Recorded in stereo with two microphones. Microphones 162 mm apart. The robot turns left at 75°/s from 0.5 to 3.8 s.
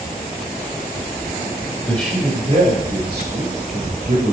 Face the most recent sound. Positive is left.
turn(degrees=-130)